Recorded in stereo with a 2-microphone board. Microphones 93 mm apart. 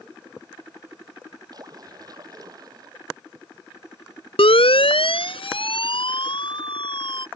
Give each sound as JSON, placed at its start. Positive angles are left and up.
{"t": 1.5, "sound": "a splash", "side_deg": -45}
{"t": 4.4, "sound": "a siren", "side_deg": 80}